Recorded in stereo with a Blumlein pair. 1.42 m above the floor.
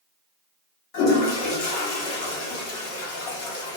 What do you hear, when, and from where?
0.9 s a toilet flushing: 45° left, 0.8 m